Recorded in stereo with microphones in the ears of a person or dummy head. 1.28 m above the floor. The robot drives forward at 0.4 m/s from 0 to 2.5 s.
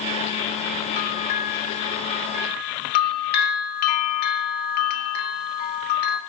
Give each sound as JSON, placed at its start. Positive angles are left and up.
{"t": 1.0, "sound": "a bell", "side_deg": 45, "distance_m": 2.0}